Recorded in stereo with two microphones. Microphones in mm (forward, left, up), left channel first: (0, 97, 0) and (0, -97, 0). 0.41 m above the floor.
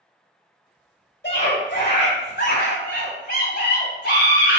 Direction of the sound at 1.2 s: 60° left (ahead or behind).